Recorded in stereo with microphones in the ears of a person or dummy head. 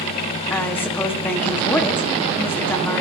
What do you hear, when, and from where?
0.5 s a woman speaking: 10° left (ahead or behind), 1.7 m